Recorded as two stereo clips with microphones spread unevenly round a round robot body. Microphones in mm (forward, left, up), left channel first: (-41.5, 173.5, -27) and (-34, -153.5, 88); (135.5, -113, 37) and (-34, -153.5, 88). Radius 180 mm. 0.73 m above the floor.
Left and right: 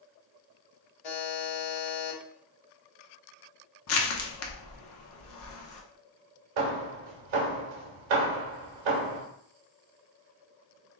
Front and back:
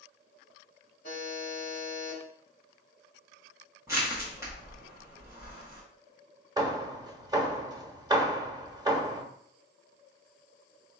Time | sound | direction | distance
1.0 | a buzzer | 80° left | 1.3 m
3.9 | crushing | 105° left | 1.1 m
6.6 | hammering | 90° right | 1.1 m